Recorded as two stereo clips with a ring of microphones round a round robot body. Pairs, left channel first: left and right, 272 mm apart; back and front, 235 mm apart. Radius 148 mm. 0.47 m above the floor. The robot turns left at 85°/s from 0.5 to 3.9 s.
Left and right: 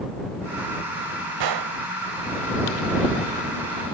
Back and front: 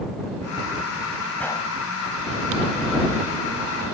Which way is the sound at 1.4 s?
95° right.